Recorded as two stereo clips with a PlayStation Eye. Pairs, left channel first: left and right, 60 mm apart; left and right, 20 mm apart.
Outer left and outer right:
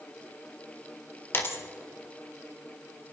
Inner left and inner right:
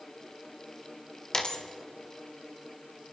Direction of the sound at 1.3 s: 40° left (ahead or behind).